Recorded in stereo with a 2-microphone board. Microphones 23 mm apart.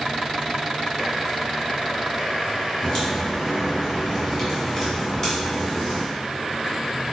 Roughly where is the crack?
Centre.